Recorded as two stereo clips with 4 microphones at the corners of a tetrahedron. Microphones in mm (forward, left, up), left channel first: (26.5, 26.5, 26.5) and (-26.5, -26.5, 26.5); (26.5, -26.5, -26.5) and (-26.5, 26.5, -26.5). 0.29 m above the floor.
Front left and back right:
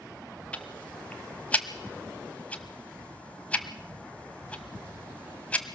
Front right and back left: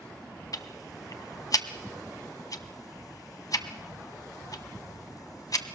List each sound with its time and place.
0.5 s ticking: 25° right, 1.3 m